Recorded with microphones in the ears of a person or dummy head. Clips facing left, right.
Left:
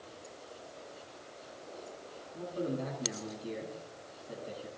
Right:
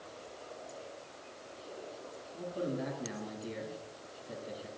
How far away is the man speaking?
About 10 m.